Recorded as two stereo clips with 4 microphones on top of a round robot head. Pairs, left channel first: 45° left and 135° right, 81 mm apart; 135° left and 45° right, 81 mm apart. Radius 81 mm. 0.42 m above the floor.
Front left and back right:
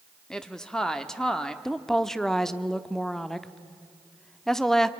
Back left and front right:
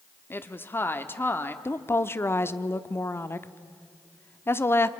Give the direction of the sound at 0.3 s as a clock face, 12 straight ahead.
8 o'clock.